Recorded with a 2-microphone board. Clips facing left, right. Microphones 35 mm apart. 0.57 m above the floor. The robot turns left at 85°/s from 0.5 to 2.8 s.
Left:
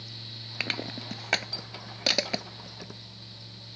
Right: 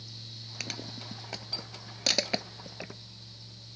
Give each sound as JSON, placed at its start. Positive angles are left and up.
{"t": 0.6, "sound": "crushing", "side_deg": 35}